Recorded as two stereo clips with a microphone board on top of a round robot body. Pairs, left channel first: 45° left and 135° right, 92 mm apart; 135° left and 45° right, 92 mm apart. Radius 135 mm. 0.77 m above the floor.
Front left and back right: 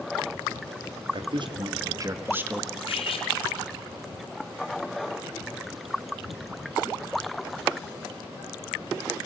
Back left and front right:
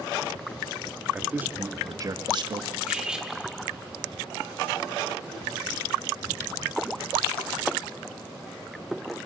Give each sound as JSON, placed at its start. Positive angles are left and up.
{"t": 1.1, "sound": "a man speaking", "azimuth_deg": -125, "distance_m": 2.0}
{"t": 2.9, "sound": "cutlery clinking", "azimuth_deg": 35, "distance_m": 1.7}